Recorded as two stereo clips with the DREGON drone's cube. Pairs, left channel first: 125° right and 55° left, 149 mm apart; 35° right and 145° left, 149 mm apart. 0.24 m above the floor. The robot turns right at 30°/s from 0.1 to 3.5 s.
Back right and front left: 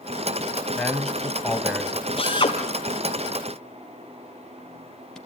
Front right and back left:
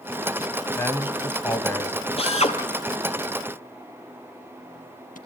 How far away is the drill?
About 2.5 m.